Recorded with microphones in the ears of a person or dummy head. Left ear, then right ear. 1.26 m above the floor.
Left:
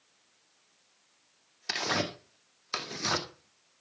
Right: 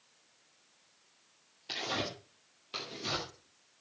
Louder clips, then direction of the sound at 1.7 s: Left 5 dB; 60° left (ahead or behind).